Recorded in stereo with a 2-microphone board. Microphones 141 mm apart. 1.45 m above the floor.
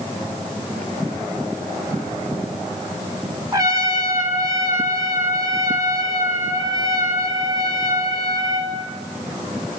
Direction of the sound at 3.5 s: 25° right (ahead or behind).